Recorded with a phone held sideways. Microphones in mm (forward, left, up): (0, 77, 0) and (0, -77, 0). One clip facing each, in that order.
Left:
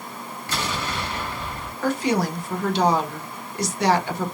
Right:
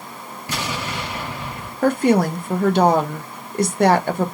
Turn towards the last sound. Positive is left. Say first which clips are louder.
# right 6 dB
turn(degrees=-55)  # may be behind; listen again after turning